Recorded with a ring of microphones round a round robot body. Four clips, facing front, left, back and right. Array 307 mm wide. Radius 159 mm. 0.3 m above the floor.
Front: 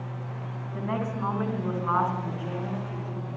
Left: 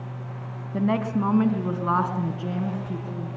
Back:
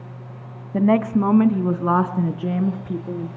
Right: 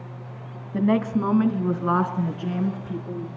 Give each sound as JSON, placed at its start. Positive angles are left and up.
{"t": 0.7, "sound": "a woman speaking", "azimuth_deg": -170, "distance_m": 2.5}